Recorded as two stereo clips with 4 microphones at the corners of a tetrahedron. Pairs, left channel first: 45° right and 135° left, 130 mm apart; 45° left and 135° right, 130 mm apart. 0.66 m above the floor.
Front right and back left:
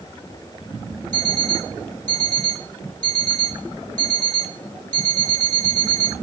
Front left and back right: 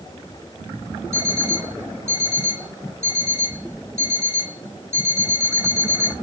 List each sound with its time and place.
1.1 s an alarm clock: 160° left, 2.5 m